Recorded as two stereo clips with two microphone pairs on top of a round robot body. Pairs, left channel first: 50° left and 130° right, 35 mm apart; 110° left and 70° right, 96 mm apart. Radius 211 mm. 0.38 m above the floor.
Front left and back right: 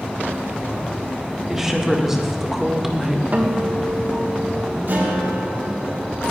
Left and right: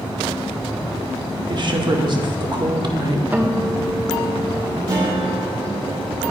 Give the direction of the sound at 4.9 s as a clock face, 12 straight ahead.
4 o'clock.